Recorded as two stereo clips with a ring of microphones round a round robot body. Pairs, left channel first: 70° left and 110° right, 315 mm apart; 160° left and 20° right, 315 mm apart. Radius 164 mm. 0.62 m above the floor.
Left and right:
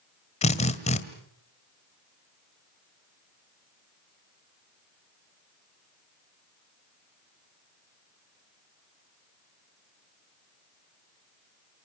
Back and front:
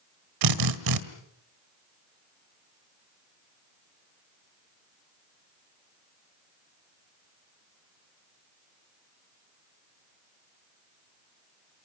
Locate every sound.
0.4 s a drill: 5° right, 1.8 m